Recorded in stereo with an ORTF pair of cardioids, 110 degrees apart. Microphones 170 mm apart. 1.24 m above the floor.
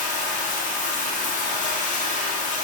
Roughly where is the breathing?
I don't hear breathing.